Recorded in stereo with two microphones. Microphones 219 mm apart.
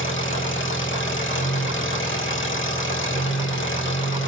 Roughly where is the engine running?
Left.